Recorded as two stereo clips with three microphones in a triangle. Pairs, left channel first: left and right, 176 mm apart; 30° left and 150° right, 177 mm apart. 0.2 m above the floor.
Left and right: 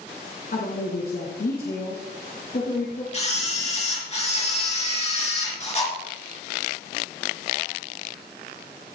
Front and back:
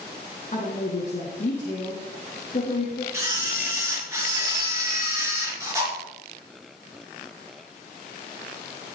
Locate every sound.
0.5 s a woman speaking: 70° left, 2 m
3.1 s a camera shutter: 140° left, 3.5 m